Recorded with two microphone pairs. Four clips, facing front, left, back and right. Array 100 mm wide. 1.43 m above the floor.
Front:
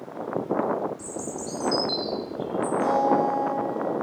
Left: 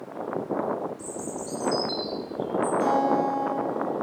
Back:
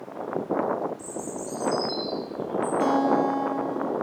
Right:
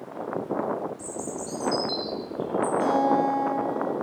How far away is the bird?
About 6 m.